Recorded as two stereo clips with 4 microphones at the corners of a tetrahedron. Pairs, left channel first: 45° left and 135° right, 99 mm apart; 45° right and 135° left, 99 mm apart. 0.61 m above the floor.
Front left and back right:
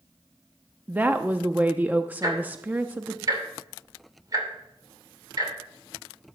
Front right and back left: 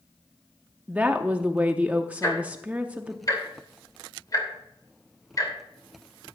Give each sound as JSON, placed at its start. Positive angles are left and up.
{"t": 0.9, "sound": "a woman speaking", "azimuth_deg": 180, "distance_m": 0.6}
{"t": 2.2, "sound": "ticking", "azimuth_deg": -90, "distance_m": 2.5}